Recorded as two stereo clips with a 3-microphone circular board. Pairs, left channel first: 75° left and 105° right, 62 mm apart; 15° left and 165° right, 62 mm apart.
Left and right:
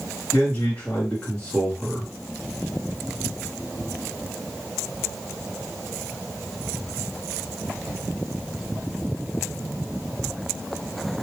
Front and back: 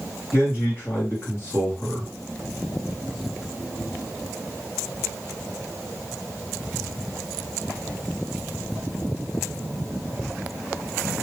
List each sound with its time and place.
0.3 s a man speaking: 15° left, 2 m